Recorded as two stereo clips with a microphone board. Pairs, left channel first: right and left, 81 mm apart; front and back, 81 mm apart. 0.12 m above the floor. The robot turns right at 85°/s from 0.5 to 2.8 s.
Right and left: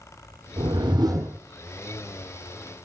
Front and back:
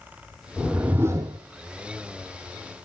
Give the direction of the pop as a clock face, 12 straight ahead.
I don't hear a pop.